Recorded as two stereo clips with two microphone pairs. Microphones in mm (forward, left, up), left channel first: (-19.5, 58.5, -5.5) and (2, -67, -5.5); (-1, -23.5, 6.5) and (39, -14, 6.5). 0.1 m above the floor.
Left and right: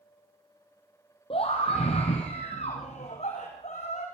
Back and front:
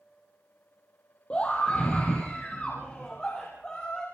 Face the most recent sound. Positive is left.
turn(degrees=130)